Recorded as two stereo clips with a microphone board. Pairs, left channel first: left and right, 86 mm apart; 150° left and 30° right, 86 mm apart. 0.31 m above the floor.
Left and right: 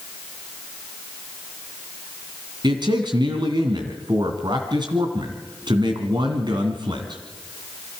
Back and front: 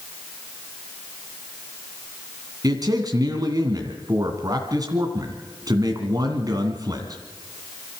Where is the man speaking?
70° right, 2.5 m.